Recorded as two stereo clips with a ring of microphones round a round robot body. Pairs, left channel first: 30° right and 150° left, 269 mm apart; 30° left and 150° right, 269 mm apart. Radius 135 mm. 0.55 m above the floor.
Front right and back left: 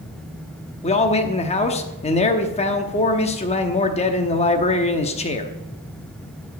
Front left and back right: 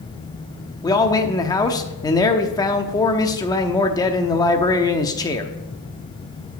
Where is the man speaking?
25° right, 0.9 m.